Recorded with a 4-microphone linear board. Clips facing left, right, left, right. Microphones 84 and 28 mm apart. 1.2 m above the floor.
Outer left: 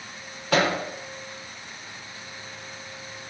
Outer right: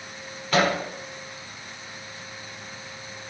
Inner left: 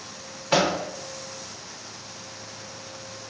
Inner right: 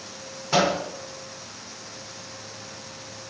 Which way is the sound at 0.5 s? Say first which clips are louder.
Even, even; 80° left.